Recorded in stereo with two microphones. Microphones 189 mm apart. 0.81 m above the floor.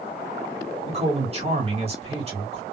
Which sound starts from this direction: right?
A man speaking, at 0.9 s.